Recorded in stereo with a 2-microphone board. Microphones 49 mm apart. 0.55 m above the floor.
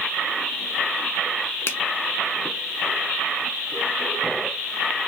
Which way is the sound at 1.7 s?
55° left (ahead or behind).